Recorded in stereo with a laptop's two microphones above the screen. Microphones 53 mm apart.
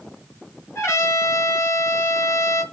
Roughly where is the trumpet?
Left.